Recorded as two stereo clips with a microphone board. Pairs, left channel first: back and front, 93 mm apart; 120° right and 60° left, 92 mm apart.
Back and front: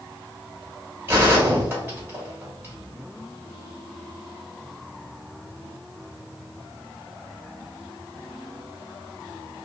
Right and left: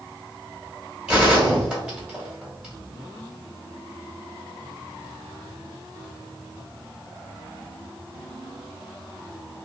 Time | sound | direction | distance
1.1 | a gunshot | 5° right | 1.7 m